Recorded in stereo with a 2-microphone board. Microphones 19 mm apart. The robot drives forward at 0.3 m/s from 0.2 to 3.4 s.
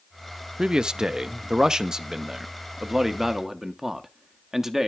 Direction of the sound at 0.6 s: 40° right (ahead or behind).